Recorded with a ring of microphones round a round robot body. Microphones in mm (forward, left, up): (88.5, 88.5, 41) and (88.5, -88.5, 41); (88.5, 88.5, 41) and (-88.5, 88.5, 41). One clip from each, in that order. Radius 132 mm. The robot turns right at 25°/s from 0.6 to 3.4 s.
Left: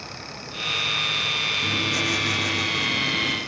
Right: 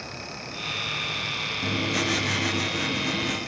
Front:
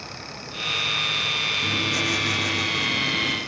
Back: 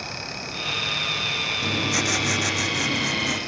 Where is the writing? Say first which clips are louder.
Left 3 dB, front 1 dB; 150° left, 5.5 m; by 3.4 s 165° right, 5.5 m.